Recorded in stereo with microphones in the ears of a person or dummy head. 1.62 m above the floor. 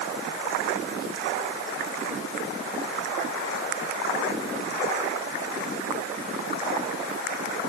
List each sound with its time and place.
Only background noise.